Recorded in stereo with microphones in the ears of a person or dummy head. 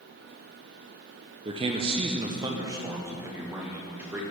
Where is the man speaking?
25° right (ahead or behind), 0.6 m; by 4.2 s 5° right (ahead or behind), 1.5 m.